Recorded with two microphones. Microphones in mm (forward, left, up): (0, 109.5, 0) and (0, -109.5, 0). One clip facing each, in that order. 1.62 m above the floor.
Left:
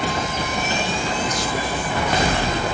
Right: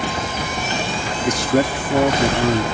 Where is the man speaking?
80° right.